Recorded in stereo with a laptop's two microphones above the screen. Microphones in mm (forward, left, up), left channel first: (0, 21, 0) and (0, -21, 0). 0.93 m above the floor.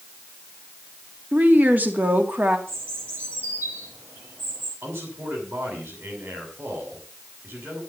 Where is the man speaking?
75° right (ahead or behind), 6.5 m.